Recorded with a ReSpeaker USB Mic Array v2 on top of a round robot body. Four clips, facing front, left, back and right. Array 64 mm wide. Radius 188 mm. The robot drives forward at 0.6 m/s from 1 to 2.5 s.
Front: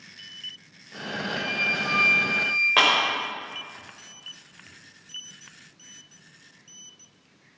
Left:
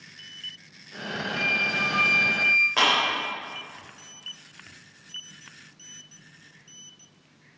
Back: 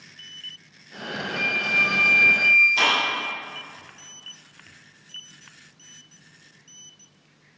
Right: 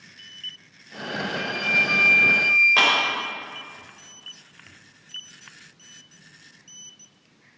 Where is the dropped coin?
No dropped coin in this recording.